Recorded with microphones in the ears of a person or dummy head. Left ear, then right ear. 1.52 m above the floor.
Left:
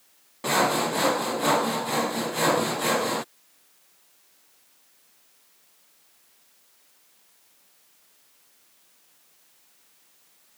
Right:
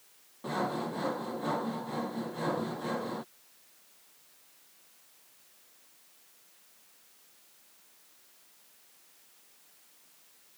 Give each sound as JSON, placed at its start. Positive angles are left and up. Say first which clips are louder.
{"t": 0.4, "sound": "sawing", "louder": "left 11 dB", "side_deg": 45}